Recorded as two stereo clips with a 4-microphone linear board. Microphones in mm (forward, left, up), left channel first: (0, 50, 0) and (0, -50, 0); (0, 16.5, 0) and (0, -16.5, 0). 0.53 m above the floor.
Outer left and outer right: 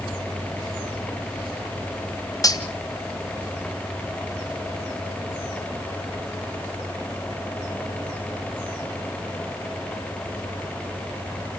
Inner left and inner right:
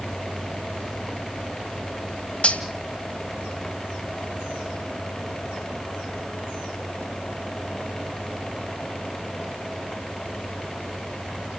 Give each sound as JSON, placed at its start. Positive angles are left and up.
{"t": 2.4, "sound": "cutlery clinking", "side_deg": 35, "distance_m": 1.8}